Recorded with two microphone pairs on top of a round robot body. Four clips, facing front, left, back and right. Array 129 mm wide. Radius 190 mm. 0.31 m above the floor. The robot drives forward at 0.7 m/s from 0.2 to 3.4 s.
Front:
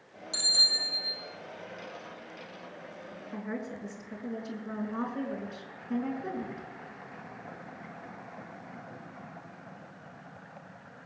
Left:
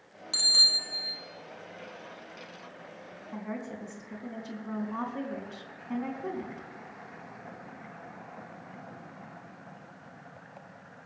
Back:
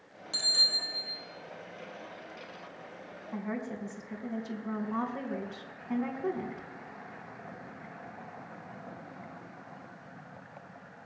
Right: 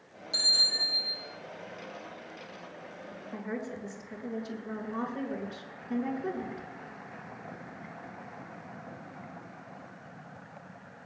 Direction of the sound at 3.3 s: 145° left.